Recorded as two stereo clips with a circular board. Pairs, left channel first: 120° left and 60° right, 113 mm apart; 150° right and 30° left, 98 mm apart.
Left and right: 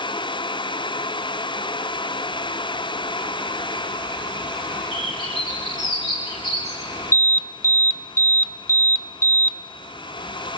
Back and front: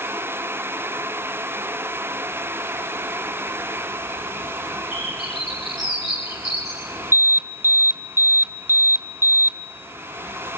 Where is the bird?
145° right, 7 m.